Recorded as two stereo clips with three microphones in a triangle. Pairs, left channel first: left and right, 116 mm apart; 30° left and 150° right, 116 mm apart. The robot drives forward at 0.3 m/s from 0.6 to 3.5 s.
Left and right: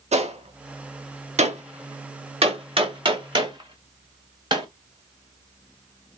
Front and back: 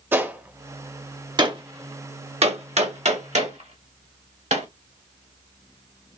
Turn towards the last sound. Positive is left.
turn(degrees=-140)